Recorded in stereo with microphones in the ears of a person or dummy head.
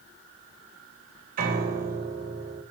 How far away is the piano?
About 3 m.